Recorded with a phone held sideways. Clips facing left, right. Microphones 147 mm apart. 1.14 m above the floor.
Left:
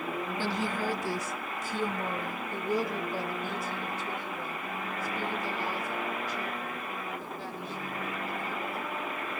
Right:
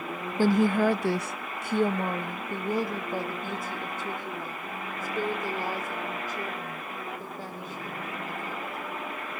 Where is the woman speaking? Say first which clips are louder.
Right 12 dB; 45° right (ahead or behind), 0.6 m.